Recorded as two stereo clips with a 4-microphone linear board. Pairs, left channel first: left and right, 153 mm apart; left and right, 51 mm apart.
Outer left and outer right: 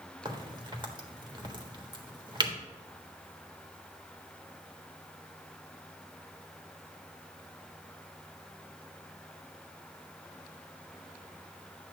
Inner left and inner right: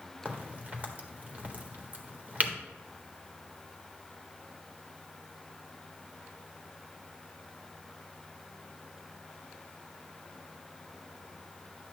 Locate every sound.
0.2 s a crack: 30° right (ahead or behind), 1.5 m